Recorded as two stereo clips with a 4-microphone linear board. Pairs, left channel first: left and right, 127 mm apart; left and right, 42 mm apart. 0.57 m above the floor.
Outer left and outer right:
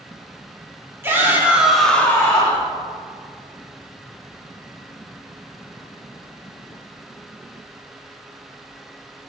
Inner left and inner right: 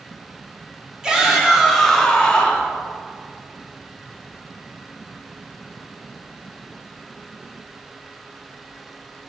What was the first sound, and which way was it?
A shout, 20° right (ahead or behind).